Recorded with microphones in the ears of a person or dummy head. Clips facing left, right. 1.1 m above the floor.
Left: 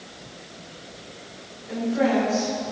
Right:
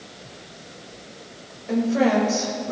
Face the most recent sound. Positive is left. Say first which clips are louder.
# right 3 dB
turn(degrees=-70)  # may be behind; listen again after turning